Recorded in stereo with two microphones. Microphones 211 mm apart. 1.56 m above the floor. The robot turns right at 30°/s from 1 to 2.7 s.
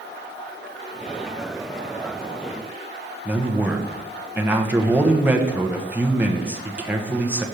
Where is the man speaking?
5° right (ahead or behind), 0.8 m.